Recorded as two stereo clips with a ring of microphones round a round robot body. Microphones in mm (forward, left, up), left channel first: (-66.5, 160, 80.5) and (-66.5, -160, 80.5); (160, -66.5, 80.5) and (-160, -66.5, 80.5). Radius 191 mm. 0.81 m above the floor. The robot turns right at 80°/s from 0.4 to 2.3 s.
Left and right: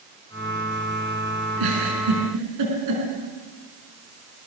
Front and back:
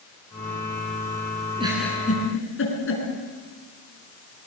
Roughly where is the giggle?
Right.